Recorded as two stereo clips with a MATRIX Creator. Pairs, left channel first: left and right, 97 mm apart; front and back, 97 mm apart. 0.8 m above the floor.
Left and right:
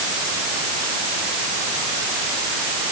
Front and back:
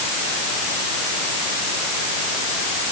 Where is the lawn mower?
I don't hear a lawn mower.